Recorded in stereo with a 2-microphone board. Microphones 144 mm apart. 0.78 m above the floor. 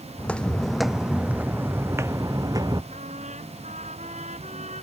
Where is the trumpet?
55° right (ahead or behind).